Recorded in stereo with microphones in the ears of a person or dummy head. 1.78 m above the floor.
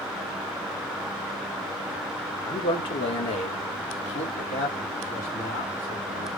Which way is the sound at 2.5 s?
25° left (ahead or behind).